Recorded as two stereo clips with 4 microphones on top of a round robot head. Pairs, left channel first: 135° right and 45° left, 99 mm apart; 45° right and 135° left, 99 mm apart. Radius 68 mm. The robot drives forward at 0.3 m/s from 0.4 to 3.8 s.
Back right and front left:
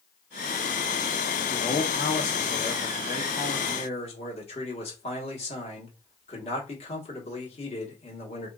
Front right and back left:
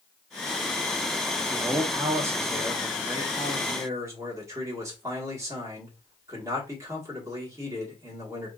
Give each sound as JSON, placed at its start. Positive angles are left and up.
{"t": 1.5, "sound": "a man speaking", "azimuth_deg": -150, "distance_m": 0.9}